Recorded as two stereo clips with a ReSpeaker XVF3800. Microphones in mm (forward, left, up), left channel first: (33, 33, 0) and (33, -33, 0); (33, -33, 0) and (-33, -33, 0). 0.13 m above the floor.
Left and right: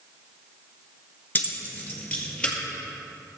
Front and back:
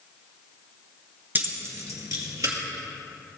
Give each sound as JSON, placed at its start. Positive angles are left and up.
{"t": 1.4, "sound": "keys jangling", "azimuth_deg": 135, "distance_m": 1.1}